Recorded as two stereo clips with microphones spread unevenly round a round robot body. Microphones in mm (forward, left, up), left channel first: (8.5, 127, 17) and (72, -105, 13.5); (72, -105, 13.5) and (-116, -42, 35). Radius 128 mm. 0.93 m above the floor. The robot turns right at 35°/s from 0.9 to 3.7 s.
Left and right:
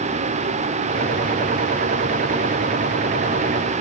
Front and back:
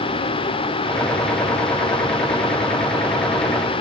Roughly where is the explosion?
No explosion in this recording.